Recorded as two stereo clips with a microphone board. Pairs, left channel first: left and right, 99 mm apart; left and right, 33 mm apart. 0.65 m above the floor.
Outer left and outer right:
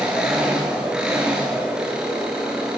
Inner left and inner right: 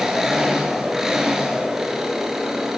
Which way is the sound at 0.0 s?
10° right (ahead or behind).